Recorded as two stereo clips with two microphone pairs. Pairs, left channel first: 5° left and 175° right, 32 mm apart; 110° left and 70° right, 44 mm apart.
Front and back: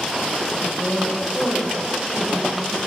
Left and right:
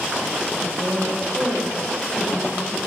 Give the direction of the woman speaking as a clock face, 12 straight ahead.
5 o'clock.